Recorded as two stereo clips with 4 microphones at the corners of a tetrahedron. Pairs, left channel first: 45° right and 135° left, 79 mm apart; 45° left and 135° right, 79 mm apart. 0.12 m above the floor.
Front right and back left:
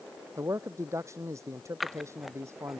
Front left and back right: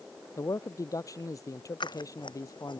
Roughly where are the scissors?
Ahead left.